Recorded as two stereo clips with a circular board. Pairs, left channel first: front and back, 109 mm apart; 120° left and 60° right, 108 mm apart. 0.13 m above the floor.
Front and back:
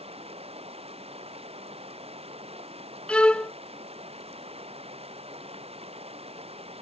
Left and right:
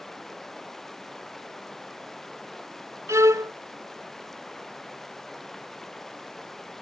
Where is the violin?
65° right.